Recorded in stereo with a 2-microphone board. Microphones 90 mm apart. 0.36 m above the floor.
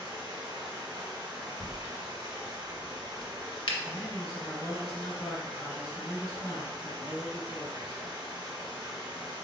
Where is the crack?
70° left (ahead or behind), 0.5 m.